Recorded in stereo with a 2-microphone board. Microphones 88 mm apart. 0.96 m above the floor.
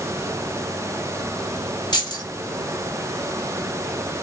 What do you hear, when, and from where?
1.9 s keys jangling: 50° left (ahead or behind), 1.2 m